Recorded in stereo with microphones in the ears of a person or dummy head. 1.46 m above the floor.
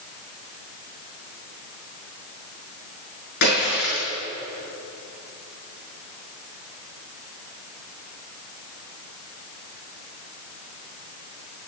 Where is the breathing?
I don't hear breathing.